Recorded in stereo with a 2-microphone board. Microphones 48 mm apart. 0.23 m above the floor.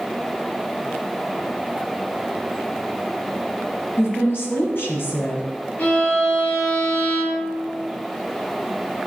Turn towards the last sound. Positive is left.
turn(degrees=45)  # may be behind; listen again after turning